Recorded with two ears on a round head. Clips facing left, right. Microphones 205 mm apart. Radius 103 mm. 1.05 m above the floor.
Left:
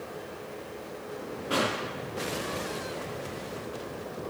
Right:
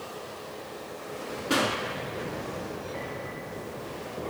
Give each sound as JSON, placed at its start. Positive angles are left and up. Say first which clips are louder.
{"t": 1.5, "sound": "a pop", "louder": "right 2 dB", "side_deg": -30, "distance_m": 5.0}